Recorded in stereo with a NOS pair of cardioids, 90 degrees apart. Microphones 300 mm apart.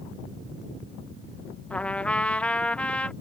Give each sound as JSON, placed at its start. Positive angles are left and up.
{"t": 1.7, "sound": "a trumpet", "azimuth_deg": 5}